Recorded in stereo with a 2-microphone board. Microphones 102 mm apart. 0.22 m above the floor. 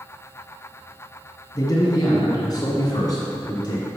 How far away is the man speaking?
About 1.7 m.